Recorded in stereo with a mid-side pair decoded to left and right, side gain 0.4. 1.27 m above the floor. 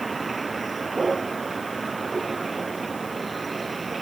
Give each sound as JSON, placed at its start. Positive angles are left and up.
{"t": 0.0, "sound": "a vehicle", "azimuth_deg": -25}